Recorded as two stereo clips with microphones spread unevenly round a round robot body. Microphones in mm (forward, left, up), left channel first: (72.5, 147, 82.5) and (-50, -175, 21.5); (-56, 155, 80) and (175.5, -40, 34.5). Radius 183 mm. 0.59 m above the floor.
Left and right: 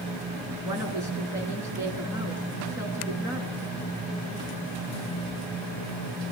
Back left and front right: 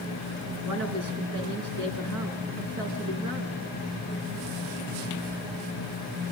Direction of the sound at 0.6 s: 30° right.